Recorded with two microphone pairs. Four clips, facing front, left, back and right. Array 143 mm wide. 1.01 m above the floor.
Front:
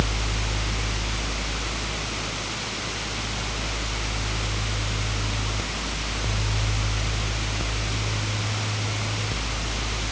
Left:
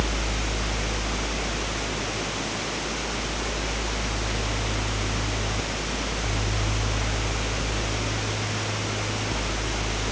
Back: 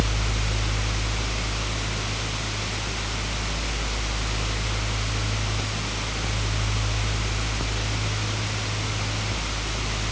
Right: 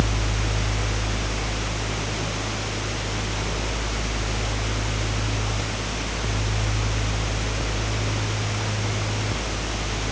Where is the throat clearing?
I don't hear throat clearing.